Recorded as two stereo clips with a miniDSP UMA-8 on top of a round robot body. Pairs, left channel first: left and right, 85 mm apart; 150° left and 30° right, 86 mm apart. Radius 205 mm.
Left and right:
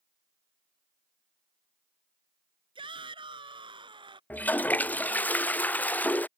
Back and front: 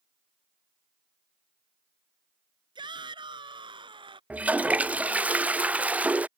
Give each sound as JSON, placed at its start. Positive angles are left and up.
{"t": 2.8, "sound": "a shout", "azimuth_deg": -65}
{"t": 4.3, "sound": "a toilet flushing", "azimuth_deg": 35}